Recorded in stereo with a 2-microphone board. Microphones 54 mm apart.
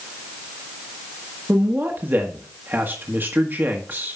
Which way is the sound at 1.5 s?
35° right (ahead or behind).